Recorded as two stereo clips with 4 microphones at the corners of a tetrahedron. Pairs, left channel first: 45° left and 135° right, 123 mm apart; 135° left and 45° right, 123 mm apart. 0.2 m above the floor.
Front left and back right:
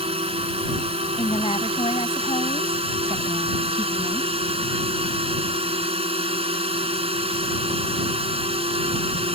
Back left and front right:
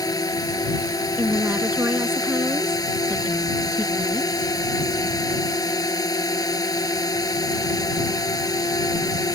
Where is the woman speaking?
25° left.